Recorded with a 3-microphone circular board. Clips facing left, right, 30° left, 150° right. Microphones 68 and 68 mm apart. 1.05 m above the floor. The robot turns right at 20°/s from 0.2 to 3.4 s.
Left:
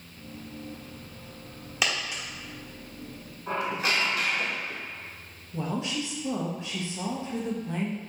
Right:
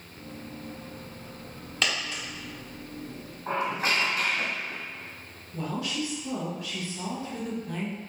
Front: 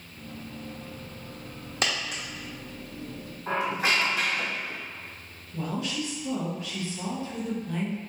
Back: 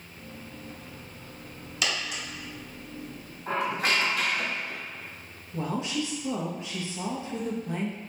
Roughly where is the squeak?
Ahead right.